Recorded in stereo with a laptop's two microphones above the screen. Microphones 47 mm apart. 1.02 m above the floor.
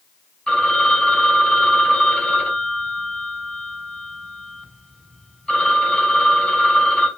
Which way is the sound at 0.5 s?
20° left (ahead or behind).